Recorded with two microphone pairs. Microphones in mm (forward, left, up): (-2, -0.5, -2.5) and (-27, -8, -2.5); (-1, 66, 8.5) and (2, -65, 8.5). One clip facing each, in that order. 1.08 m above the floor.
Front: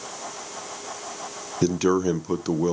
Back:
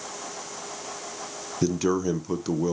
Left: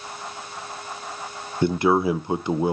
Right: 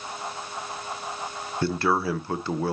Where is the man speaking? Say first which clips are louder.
Front 3 dB, left 5 dB; 55° left, 0.5 m.